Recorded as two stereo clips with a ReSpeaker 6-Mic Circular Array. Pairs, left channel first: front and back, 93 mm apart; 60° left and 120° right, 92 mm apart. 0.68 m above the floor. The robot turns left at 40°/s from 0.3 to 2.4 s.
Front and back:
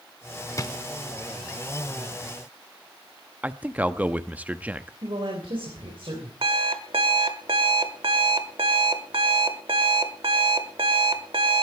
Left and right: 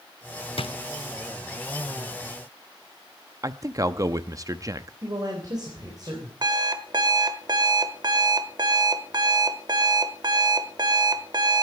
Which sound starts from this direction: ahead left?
A drawer, at 0.6 s.